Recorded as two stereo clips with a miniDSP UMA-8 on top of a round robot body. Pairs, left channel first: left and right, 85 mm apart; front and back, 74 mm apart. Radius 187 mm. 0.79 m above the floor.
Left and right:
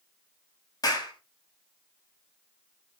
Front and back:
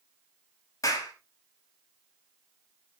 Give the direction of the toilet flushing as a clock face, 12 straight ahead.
No toilet flushing in this recording.